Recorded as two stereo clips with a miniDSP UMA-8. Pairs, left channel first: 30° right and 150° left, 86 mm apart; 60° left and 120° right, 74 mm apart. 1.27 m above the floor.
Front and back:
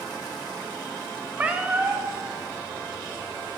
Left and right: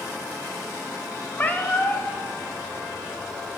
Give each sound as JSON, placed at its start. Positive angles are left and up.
{"t": 1.4, "sound": "a cat meowing", "azimuth_deg": 95, "distance_m": 1.2}